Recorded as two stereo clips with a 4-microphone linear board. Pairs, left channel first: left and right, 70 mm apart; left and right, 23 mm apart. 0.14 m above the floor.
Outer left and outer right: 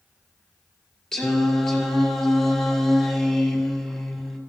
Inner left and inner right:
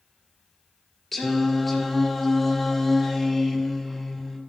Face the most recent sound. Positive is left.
turn(degrees=10)  # may be behind; listen again after turning